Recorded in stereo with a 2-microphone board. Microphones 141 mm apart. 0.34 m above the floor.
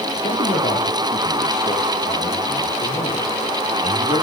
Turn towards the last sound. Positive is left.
turn(degrees=45)  # may be behind; listen again after turning